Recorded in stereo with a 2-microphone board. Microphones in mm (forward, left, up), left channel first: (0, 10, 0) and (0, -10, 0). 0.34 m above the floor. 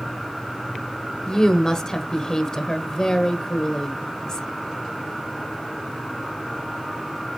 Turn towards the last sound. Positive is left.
turn(degrees=30)  # may be behind; listen again after turning